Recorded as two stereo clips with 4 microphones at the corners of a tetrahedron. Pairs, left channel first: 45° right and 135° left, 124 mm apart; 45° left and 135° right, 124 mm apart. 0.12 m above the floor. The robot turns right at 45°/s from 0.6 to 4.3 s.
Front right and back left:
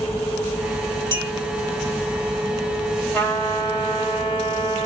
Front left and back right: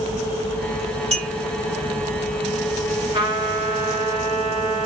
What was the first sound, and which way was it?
A clink, 170° right.